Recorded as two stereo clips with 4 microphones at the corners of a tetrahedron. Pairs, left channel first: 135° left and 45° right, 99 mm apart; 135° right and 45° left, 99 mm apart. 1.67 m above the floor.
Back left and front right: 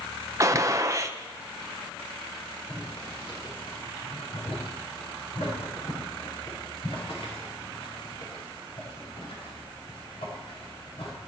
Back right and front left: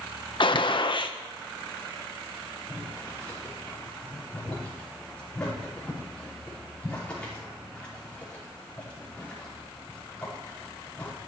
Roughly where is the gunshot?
Right.